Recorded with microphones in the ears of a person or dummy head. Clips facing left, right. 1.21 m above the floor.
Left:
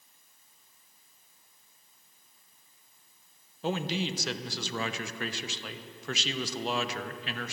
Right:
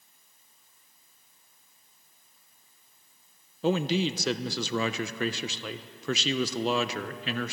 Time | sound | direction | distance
3.6 | a man speaking | 60° right (ahead or behind) | 0.7 m